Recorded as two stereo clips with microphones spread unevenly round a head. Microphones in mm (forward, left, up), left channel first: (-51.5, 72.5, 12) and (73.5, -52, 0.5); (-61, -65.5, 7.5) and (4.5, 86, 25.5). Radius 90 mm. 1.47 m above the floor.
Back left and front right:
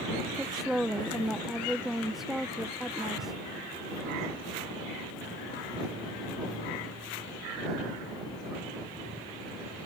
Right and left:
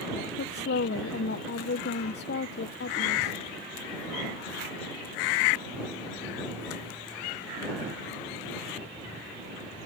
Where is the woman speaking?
135° right.